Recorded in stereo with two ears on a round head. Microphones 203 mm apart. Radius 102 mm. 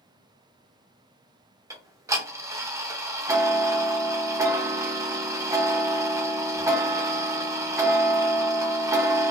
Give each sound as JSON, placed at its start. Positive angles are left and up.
{"t": 1.7, "sound": "ticking", "side_deg": -15, "distance_m": 1.0}